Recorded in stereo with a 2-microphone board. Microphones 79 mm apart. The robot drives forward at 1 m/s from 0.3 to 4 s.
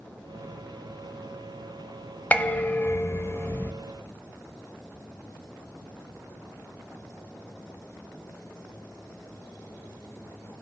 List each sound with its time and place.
2.3 s dishes clattering: 20° left (ahead or behind), 1.0 m; by 3.7 s 25° left (ahead or behind), 0.8 m